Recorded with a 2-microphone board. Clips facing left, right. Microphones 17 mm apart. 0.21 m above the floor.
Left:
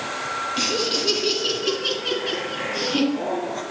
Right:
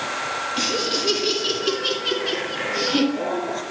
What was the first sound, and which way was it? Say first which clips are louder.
Laughter: even; 10° left (ahead or behind).